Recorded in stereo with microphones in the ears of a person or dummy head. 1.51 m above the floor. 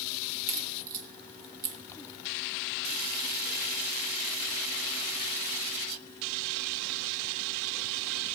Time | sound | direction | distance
0.5 | a crack | 45° right (ahead or behind) | 1.1 m